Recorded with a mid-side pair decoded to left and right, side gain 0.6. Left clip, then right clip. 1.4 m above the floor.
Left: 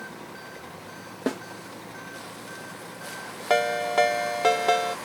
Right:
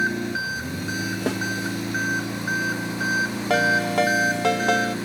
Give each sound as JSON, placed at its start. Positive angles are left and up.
{"t": 0.0, "sound": "an engine running", "azimuth_deg": -70}
{"t": 1.3, "sound": "a snare drum", "azimuth_deg": -15}
{"t": 3.5, "sound": "a ringtone", "azimuth_deg": 0}